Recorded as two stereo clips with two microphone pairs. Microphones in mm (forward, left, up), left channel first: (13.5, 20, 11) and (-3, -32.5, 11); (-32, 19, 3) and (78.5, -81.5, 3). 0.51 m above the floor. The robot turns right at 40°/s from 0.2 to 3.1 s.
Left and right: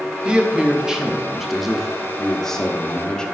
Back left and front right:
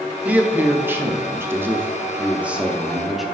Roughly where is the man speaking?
Right.